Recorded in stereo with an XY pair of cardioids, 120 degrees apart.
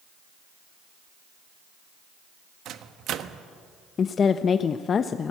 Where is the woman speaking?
40° left, 0.7 m.